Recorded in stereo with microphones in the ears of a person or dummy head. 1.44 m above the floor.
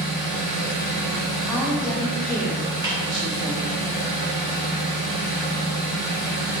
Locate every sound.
0.0 s an engine running: 60° left (ahead or behind), 0.9 m
1.5 s a woman speaking: 5° left (ahead or behind), 0.8 m
2.8 s a snare drum: 20° right (ahead or behind), 1.4 m